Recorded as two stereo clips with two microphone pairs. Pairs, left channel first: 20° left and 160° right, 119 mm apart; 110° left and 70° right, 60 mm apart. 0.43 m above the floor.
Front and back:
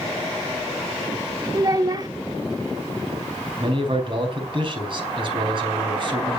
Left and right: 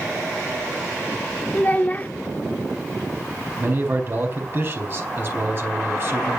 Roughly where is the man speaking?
Behind right.